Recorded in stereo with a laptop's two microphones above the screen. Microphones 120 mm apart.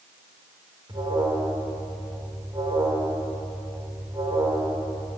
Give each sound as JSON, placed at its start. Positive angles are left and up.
{"t": 0.9, "sound": "an alarm", "side_deg": -40, "distance_m": 4.5}